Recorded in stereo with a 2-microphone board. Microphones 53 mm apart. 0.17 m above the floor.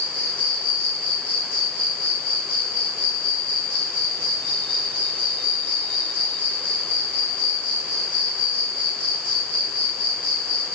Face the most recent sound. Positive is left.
turn(degrees=30)  # may be behind; listen again after turning